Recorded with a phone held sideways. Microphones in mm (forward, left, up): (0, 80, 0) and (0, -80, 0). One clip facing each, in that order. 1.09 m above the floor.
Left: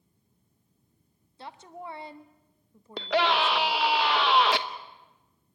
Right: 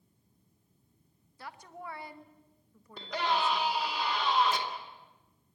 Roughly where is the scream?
Left.